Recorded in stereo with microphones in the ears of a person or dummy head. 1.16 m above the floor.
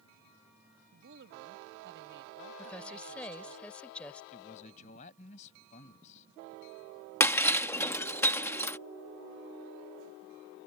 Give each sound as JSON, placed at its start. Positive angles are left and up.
{"t": 0.9, "sound": "a woman speaking", "side_deg": -60}
{"t": 2.6, "sound": "a woman speaking", "side_deg": 5}
{"t": 4.3, "sound": "a man speaking", "side_deg": 40}
{"t": 7.2, "sound": "breaking glass", "side_deg": 15}